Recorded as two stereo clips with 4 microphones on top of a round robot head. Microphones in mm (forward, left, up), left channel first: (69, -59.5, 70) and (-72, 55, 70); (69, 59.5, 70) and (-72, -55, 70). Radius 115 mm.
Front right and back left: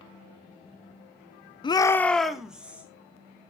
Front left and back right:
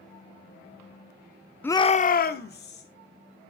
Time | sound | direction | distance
1.6 | a shout | 30° right | 0.7 m